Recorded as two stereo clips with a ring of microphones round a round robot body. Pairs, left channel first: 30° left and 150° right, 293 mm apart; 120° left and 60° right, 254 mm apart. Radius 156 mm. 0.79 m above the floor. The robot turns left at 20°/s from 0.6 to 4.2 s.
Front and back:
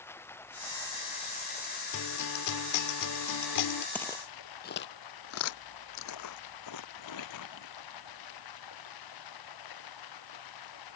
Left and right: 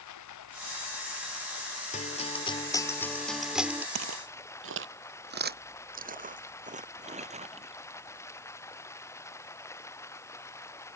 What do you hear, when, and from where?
0.0 s running water: 115° left; by 11.0 s 40° left
1.9 s a guitar: 60° left; by 3.9 s 20° left
4.0 s footsteps: 55° right; by 7.8 s 5° left